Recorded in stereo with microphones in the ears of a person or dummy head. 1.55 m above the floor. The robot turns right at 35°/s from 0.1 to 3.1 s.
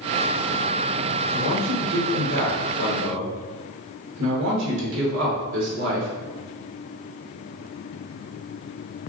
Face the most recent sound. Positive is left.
turn(degrees=-75)